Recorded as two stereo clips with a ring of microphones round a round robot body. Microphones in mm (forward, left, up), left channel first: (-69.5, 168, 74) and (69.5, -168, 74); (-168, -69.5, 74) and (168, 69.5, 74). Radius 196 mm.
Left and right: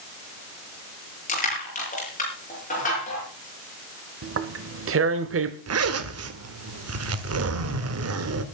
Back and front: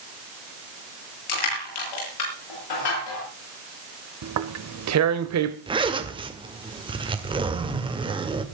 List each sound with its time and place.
1.3 s crushing: straight behind, 9 m
4.2 s tearing paper: 20° right, 1.5 m
5.7 s a zipper: 50° right, 1.8 m